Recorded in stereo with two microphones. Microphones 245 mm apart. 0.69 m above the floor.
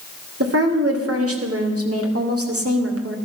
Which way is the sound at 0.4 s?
70° right (ahead or behind).